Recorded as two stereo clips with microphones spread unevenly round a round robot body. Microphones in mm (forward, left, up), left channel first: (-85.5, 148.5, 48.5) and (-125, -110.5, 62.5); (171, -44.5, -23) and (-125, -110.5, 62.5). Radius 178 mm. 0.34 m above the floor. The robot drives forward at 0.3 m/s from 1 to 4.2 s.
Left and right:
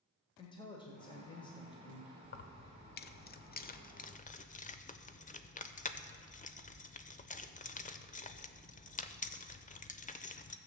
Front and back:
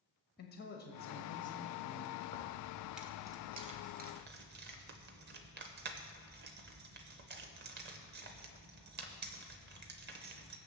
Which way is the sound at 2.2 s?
60° left.